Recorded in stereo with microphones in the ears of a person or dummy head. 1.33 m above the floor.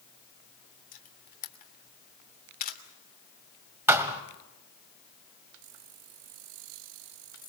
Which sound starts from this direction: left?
A camera shutter, at 0.9 s.